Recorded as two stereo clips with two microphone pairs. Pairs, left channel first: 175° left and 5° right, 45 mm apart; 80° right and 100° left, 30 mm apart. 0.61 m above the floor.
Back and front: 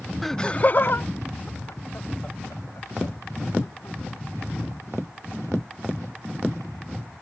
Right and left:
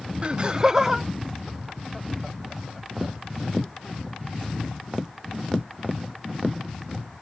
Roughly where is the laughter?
Left.